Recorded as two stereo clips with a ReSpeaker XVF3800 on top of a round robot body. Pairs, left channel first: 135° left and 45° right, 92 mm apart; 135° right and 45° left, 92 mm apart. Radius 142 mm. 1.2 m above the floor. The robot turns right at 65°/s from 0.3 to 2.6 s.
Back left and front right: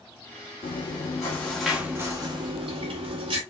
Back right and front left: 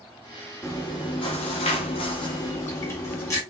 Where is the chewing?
155° left, 1.4 m; by 3.4 s 75° right, 1.4 m.